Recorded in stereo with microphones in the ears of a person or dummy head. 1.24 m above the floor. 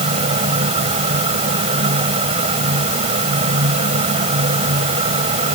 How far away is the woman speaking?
I don't hear a woman speaking.